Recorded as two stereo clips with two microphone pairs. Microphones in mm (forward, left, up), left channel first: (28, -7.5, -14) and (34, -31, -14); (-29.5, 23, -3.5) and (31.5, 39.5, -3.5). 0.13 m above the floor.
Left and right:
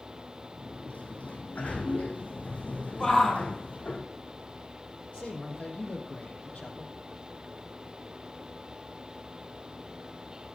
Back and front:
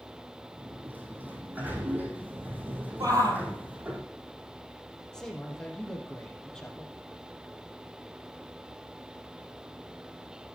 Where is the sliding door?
80° left, 3.5 m.